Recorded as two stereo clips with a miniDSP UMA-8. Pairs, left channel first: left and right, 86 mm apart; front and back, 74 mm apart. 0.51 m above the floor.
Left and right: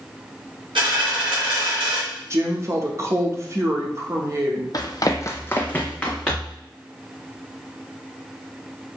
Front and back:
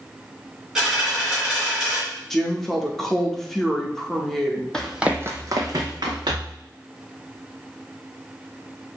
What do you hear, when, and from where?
0.8 s a dropped coin: 95° right, 2.5 m
2.3 s a woman speaking: 85° right, 0.8 m
4.7 s running footsteps: 75° left, 0.7 m; by 6.6 s 175° left, 1.9 m